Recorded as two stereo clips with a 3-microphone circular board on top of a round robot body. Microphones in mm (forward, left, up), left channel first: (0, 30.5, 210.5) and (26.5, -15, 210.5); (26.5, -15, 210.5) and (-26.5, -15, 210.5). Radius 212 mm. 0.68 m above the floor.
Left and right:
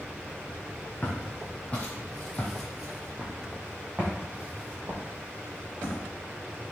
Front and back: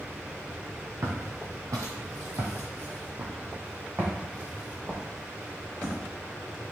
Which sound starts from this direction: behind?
Footsteps, at 1.0 s.